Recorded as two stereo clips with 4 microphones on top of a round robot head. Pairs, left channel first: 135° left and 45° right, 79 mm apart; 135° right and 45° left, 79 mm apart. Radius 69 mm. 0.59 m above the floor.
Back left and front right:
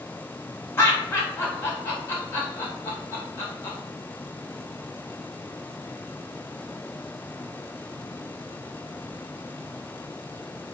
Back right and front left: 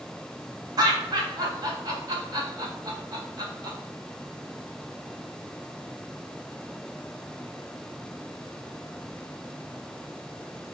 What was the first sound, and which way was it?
Laughter, 80° left.